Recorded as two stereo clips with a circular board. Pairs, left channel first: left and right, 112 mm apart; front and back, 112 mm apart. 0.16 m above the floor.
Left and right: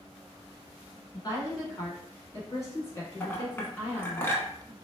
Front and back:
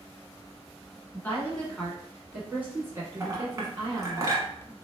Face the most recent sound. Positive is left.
turn(degrees=145)